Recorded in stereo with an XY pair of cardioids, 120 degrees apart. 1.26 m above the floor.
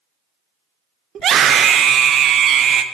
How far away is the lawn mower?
No lawn mower in this recording.